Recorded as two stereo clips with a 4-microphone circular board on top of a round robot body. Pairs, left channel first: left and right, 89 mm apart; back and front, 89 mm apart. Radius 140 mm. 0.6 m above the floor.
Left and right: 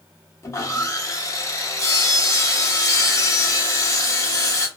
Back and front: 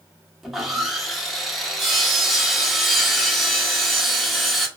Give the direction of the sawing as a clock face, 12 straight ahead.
9 o'clock.